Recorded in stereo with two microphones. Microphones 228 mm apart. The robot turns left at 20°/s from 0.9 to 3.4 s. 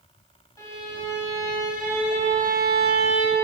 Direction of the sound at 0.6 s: 15° left.